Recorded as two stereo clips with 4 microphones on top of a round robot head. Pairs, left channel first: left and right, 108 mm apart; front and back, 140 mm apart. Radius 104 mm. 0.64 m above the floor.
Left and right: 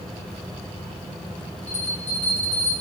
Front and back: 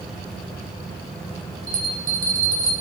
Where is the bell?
170° left, 3 m.